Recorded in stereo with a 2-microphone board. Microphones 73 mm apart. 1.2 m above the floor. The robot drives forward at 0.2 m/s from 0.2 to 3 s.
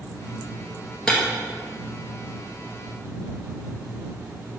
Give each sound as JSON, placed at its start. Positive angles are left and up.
{"t": 1.1, "sound": "breaking glass", "side_deg": 10, "distance_m": 2.0}